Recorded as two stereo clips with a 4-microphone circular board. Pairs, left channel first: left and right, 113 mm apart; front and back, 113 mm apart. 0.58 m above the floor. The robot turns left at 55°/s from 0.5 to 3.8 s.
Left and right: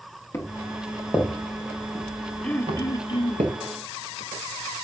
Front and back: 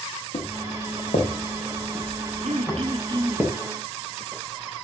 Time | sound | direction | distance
0.3 | footsteps | 25° left | 4.5 m
2.4 | throat clearing | 170° left | 1.0 m